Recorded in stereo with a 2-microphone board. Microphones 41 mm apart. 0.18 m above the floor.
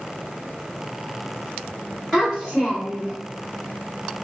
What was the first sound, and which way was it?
A child speaking, 5° left (ahead or behind).